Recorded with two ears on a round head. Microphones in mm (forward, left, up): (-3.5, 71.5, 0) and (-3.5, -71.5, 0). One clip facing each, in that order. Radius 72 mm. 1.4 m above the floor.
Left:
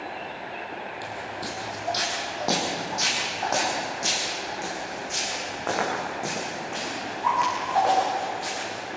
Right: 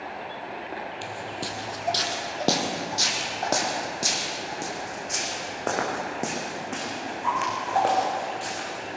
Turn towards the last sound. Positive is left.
turn(degrees=-45)  # may be behind; listen again after turning